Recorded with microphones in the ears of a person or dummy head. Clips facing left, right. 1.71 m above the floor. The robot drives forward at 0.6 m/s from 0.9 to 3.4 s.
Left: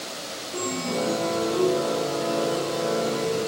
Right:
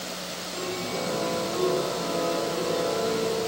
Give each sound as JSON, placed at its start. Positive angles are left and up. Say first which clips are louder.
{"t": 0.5, "sound": "a chime", "louder": "left 4 dB", "side_deg": 55, "distance_m": 0.7}